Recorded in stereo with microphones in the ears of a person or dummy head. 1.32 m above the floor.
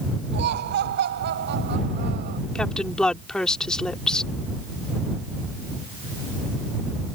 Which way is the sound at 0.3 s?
50° right (ahead or behind).